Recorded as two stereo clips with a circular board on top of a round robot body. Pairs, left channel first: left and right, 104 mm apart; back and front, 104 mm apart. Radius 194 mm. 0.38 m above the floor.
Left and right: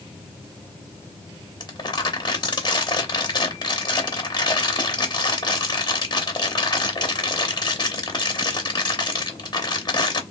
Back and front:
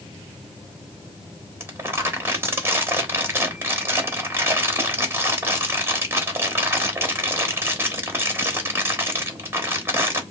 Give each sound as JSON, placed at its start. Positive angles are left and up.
{"t": 1.6, "sound": "crumpling", "azimuth_deg": 60, "distance_m": 1.7}